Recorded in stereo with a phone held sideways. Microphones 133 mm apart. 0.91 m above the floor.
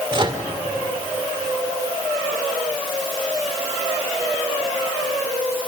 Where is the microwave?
35° right (ahead or behind), 2.5 m.